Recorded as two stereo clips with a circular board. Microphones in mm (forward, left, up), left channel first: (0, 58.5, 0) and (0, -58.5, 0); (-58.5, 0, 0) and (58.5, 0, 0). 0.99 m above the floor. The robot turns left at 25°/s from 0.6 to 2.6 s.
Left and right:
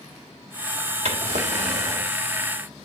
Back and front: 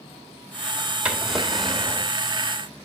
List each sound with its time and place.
1.1 s a drawer: 80° right, 2 m; by 2.1 s 105° right, 2 m